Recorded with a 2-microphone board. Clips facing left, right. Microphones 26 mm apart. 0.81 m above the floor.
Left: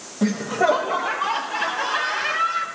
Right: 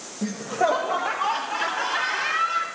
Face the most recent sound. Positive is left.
turn(degrees=-30)  # may be behind; listen again after turning